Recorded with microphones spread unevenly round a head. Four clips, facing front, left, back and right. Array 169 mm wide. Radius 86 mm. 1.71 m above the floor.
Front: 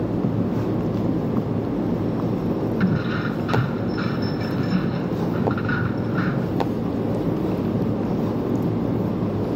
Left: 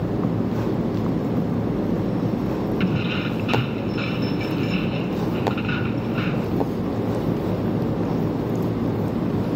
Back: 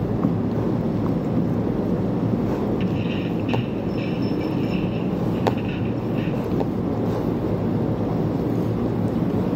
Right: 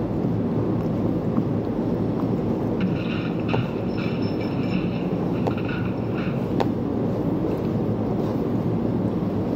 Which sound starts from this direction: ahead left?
Keys jangling, at 2.8 s.